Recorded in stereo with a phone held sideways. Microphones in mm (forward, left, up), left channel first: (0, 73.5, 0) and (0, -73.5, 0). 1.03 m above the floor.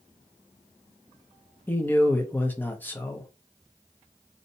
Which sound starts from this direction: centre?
A man speaking, at 1.7 s.